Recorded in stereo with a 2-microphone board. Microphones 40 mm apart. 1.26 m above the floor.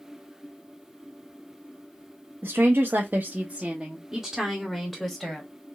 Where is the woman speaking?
75° right (ahead or behind), 0.7 m; by 5.5 s 10° left (ahead or behind), 1.4 m.